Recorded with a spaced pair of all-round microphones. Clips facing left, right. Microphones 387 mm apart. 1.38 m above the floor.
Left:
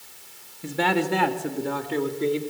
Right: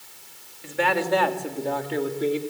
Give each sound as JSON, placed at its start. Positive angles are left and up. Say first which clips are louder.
{"t": 0.6, "sound": "a man speaking", "louder": "left 1 dB", "side_deg": 60, "distance_m": 2.5}